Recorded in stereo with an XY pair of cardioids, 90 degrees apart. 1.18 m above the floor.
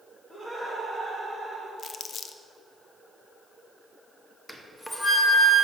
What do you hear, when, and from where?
0.3 s laughter: 15° left, 1.8 m; by 1.7 s straight ahead, 2.5 m
1.8 s crumpling: 55° left, 0.6 m
4.5 s a flute: 10° left, 1.0 m